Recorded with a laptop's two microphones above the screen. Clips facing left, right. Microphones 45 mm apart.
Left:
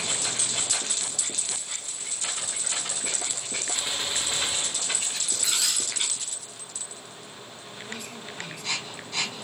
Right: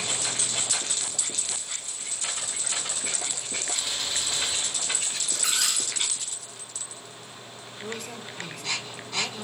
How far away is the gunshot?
About 1.6 m.